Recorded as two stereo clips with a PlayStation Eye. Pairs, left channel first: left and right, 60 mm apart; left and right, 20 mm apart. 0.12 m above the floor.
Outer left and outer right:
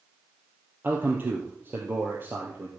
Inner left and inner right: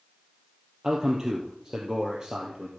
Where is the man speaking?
35° right (ahead or behind), 2.5 m.